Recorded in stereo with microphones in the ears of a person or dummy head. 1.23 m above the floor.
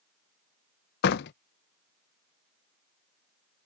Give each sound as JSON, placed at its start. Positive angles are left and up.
{"t": 1.0, "sound": "a door slam", "side_deg": 60}